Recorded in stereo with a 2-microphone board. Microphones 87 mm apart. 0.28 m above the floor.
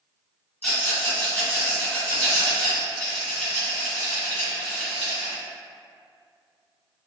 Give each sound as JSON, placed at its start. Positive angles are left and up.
{"t": 0.6, "sound": "a rattle", "side_deg": 10, "distance_m": 1.3}